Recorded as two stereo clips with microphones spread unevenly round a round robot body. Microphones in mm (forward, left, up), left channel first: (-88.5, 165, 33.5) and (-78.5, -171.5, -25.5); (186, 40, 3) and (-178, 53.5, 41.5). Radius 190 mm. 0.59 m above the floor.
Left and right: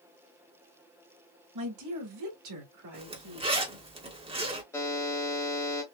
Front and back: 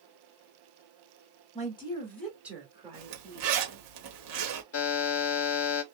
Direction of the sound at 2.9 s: 150° right.